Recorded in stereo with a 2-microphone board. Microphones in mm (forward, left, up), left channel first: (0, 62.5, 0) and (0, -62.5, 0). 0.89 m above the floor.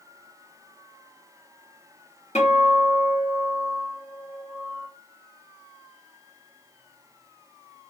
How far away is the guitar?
About 1.5 m.